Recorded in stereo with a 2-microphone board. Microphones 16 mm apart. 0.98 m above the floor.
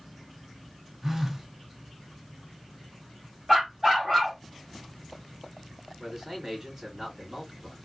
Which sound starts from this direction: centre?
A dog barking, at 3.5 s.